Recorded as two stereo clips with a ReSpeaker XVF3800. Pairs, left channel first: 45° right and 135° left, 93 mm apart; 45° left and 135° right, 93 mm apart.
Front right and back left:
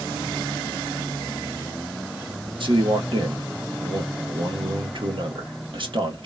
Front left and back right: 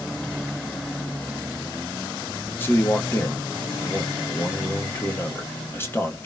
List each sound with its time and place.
2.6 s a man speaking: 110° left, 1.1 m